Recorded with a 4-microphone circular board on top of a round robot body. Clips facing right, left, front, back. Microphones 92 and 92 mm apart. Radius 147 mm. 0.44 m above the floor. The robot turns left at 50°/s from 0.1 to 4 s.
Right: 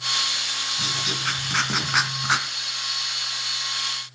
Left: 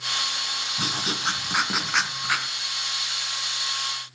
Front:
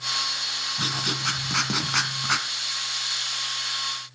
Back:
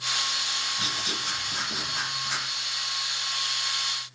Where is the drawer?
No drawer in this recording.